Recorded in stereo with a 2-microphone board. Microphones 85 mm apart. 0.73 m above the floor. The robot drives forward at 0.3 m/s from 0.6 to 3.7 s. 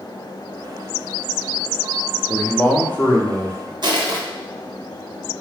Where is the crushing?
60° right (ahead or behind), 0.6 m.